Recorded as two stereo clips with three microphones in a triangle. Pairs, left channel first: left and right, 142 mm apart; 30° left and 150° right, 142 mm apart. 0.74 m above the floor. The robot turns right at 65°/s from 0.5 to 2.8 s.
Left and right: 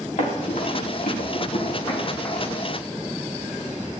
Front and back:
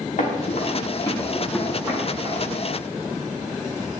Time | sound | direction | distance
0.2 | running footsteps | 60° left | 7 m